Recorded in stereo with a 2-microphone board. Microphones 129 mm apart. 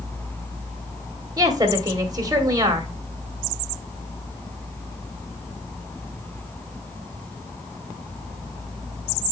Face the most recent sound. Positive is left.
turn(degrees=-30)  # may be behind; listen again after turning